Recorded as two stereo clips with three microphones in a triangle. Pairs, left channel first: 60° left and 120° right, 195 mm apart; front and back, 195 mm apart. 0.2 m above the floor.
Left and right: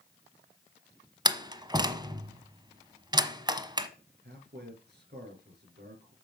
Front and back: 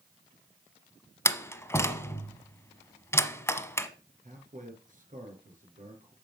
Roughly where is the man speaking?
Behind right.